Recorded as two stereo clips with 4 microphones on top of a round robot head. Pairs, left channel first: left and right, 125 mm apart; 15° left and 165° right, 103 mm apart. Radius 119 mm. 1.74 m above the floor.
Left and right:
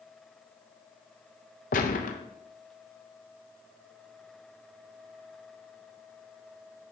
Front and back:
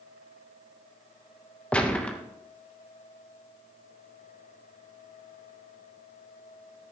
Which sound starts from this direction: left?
A gunshot, at 1.7 s.